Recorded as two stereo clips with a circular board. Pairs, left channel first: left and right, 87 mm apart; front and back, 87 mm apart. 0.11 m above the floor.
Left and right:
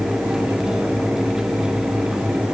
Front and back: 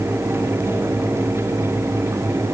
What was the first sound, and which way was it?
Only background noise.